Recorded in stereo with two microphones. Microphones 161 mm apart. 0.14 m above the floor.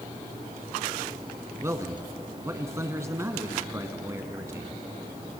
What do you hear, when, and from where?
1.6 s a man speaking: 20° right (ahead or behind), 1.3 m